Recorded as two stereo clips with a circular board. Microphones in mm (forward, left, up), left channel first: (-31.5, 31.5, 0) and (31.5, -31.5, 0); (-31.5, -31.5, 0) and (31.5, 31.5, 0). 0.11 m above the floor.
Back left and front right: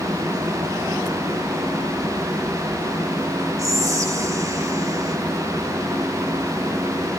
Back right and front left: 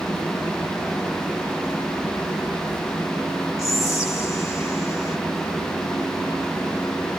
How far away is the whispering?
About 2 m.